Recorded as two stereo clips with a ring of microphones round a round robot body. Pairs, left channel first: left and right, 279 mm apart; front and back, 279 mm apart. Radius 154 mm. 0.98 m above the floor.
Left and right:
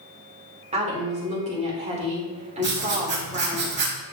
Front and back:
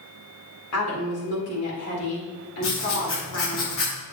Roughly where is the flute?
No flute in this recording.